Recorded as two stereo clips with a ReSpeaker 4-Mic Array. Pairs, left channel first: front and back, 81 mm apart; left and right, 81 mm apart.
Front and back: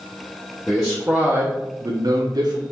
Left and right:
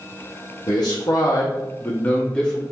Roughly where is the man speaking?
Left.